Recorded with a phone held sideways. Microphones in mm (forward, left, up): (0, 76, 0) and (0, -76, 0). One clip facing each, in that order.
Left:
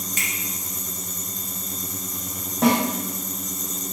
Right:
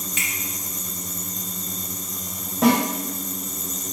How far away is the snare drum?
About 1.2 m.